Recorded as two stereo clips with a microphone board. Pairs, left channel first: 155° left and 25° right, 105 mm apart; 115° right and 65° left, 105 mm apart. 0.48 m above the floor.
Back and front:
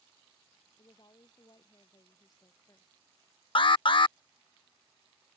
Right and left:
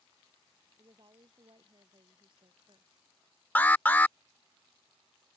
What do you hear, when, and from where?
0.8 s a woman speaking: 110° left; by 2.9 s 100° left
3.5 s an alarm: straight behind